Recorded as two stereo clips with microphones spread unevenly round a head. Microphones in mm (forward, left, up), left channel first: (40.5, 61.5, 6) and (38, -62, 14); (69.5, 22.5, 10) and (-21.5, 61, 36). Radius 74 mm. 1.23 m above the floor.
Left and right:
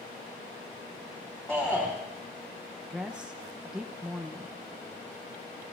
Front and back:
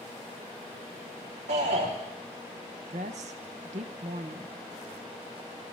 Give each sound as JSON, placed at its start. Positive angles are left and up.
{"t": 1.5, "sound": "a shout", "azimuth_deg": 175, "distance_m": 3.0}
{"t": 2.9, "sound": "a woman speaking", "azimuth_deg": -175, "distance_m": 1.2}